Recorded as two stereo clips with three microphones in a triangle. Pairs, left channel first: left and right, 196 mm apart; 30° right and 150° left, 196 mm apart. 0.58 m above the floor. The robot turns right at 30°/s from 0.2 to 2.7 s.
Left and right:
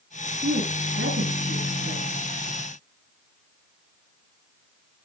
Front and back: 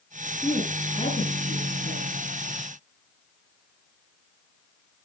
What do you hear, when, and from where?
0.4 s a woman speaking: 110° right, 8.5 m; by 2.2 s 55° right, 8.5 m